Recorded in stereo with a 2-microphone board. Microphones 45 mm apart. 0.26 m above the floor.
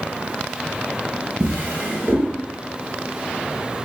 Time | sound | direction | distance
1.4 | a drawer | 25° right (ahead or behind) | 3.5 m